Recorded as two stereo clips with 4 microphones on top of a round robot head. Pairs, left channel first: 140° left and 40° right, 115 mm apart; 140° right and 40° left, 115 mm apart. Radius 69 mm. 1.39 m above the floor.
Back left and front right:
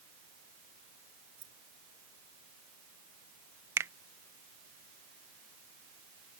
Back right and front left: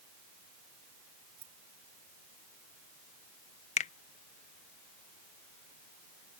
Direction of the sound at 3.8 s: 110° right.